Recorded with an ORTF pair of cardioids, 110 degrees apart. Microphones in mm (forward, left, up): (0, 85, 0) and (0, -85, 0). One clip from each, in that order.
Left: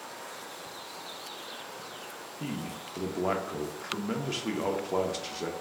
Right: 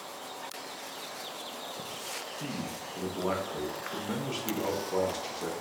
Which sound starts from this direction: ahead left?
A man speaking, at 2.4 s.